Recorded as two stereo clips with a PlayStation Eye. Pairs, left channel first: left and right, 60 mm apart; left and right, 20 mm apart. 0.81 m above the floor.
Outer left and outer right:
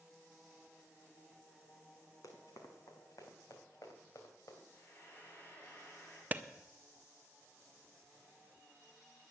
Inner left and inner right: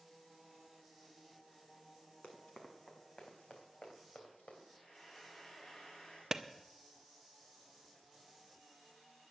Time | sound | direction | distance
2.2 | running footsteps | 65° left (ahead or behind) | 2.5 m
4.7 | frying | 30° left (ahead or behind) | 5 m
6.3 | a clap | 30° right (ahead or behind) | 0.6 m